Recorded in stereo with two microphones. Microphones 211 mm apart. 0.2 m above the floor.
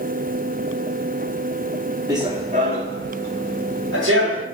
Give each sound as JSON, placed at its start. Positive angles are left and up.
{"t": 2.1, "sound": "running footsteps", "side_deg": -15, "distance_m": 0.6}